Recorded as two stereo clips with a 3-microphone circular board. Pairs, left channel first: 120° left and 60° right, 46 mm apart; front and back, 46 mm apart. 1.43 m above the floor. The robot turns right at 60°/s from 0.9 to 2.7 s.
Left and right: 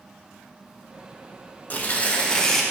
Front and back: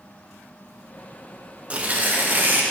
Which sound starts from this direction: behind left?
Tearing paper, at 1.7 s.